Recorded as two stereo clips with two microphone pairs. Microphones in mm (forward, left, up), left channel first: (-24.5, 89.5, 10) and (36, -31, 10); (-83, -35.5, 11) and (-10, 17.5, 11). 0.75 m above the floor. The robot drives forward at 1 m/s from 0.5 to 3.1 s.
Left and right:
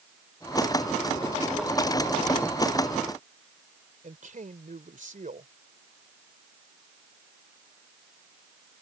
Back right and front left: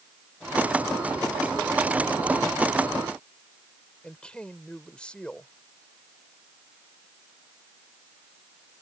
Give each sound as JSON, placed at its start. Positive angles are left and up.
{"t": 4.0, "sound": "a woman speaking", "azimuth_deg": -65}